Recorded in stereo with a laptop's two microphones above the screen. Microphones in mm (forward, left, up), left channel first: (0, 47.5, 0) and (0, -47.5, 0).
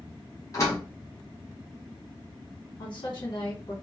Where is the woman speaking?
50° left (ahead or behind), 2.5 m.